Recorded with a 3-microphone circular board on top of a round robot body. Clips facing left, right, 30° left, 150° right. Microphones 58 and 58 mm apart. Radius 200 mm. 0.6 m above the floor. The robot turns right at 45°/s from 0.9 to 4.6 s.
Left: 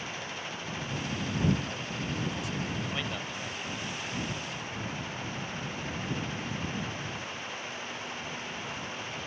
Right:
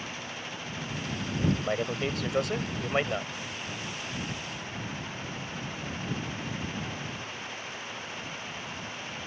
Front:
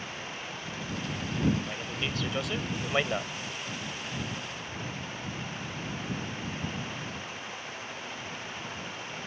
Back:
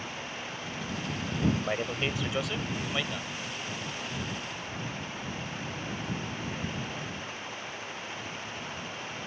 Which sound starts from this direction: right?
A man speaking, at 1.6 s.